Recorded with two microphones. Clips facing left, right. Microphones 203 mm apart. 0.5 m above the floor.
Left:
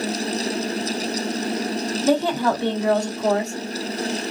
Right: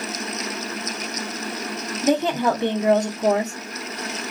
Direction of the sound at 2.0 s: 20° right (ahead or behind).